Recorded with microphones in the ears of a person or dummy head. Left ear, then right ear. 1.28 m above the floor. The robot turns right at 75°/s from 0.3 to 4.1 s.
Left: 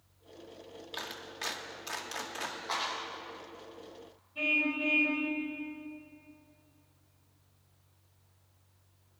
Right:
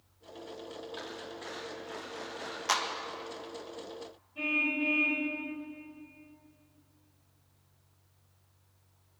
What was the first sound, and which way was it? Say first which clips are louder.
A clap: left 5 dB; 25° left (ahead or behind).